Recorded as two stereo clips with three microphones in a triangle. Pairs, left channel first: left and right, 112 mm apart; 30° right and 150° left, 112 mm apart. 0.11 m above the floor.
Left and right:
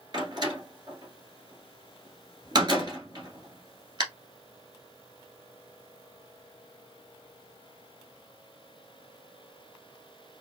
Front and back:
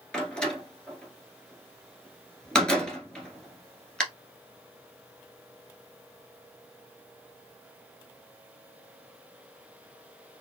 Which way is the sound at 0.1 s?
110° right.